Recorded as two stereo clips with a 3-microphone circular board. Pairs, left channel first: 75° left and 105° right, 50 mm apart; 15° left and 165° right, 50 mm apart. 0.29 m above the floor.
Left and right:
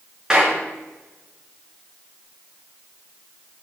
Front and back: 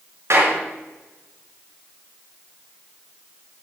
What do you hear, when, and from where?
0.3 s a clap: straight behind, 3.5 m